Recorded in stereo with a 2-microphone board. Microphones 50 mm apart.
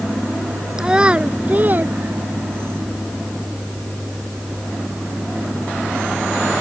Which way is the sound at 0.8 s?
15° right (ahead or behind).